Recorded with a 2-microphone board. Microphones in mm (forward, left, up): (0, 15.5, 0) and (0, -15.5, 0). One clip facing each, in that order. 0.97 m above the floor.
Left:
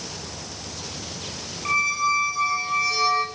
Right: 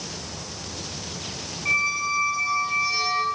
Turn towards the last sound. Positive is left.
turn(degrees=75)  # may be behind; listen again after turning